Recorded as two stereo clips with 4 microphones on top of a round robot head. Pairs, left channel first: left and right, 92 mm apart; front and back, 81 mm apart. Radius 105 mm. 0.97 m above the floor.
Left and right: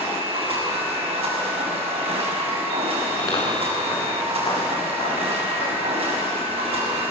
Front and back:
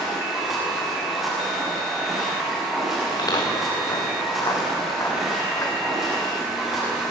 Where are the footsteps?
35° left, 5 m; by 6.9 s 55° left, 9 m.